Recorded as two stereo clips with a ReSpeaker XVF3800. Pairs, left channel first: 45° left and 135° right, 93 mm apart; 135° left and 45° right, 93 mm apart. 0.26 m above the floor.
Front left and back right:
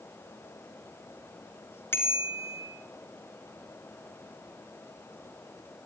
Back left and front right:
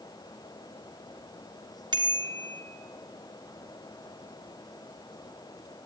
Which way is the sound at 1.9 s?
15° right.